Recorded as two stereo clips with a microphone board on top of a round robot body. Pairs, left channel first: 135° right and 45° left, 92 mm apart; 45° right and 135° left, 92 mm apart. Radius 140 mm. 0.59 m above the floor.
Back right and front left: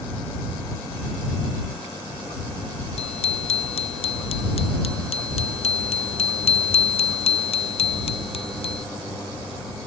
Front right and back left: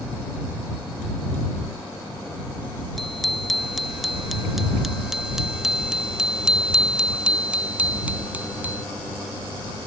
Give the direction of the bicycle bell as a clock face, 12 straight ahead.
4 o'clock.